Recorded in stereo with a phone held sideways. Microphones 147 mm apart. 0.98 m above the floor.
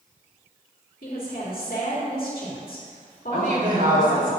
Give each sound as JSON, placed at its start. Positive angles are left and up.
{"t": 1.0, "sound": "a woman speaking", "side_deg": 80, "distance_m": 2.0}
{"t": 3.3, "sound": "a woman speaking", "side_deg": -70, "distance_m": 3.5}